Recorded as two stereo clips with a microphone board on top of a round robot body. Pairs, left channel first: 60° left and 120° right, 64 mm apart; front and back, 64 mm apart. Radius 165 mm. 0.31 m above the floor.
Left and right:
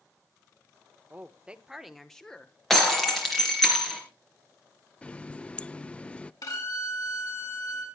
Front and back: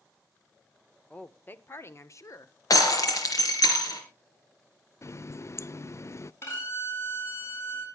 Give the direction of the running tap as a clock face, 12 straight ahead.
12 o'clock.